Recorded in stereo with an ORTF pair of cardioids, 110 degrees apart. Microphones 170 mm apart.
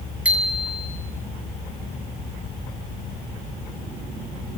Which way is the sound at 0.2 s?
5° right.